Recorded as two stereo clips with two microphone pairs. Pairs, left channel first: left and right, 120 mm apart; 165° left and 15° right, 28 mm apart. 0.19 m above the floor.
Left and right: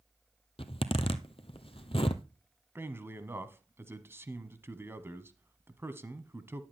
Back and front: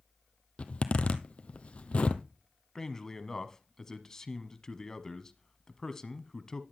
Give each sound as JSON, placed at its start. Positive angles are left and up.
{"t": 0.6, "sound": "a zipper", "azimuth_deg": 125, "distance_m": 0.9}
{"t": 2.8, "sound": "a man speaking", "azimuth_deg": -140, "distance_m": 1.1}